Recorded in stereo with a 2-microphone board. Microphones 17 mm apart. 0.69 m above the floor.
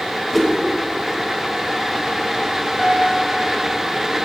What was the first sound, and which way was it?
A whoosh, 5° left (ahead or behind).